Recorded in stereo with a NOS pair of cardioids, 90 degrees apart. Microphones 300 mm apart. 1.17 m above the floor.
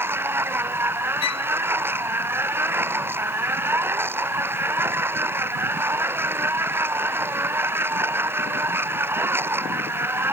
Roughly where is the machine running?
Ahead.